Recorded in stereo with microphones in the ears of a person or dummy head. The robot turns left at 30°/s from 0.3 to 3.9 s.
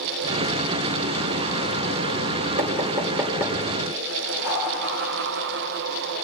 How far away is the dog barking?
About 7 m.